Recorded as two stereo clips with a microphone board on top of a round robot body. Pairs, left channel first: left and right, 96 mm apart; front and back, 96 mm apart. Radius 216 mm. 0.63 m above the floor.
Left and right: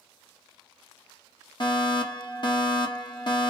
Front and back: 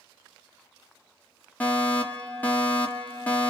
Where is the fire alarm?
70° left, 3 m.